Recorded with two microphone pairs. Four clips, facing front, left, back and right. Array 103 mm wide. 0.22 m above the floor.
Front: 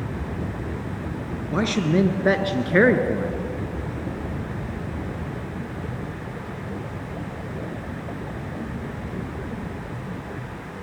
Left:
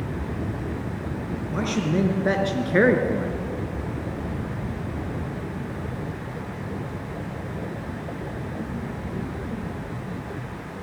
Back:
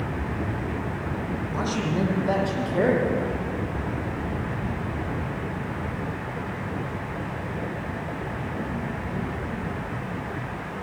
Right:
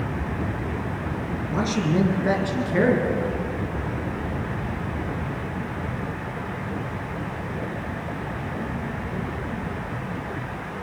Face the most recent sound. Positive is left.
turn(degrees=45)